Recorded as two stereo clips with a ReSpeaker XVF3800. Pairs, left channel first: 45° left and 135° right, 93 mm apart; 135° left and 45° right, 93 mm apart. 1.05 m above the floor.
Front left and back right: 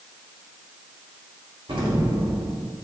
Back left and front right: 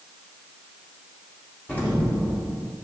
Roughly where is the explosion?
Behind right.